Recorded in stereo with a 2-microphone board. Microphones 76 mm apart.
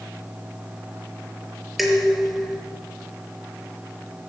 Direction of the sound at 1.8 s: Centre (ahead or behind).